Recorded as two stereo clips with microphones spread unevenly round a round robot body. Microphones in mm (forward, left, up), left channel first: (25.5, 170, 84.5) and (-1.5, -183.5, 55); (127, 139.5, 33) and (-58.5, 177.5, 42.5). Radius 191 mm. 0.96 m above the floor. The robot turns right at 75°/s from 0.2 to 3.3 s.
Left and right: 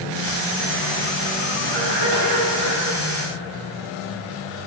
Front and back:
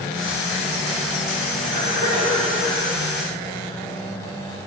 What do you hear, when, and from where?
1.6 s a cough: 160° right, 2 m; by 2.8 s 70° right, 2 m